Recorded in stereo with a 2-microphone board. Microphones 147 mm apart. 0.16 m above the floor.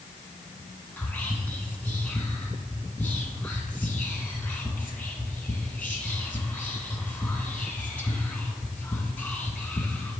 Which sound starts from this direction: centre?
Whispering, at 1.0 s.